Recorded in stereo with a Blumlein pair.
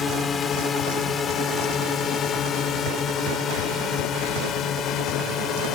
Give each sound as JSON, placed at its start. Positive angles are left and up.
{"t": 0.0, "sound": "a drone", "azimuth_deg": 20}